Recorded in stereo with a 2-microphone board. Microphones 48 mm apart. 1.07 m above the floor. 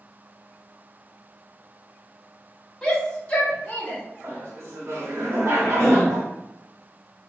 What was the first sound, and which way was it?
A shout, 15° left (ahead or behind).